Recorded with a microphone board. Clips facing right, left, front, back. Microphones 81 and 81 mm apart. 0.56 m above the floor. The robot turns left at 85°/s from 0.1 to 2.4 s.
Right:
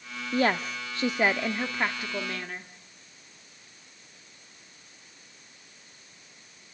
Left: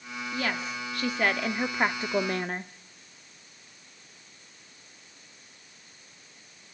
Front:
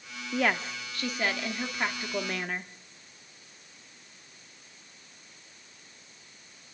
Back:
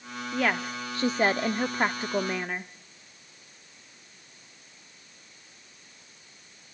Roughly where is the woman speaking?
Right.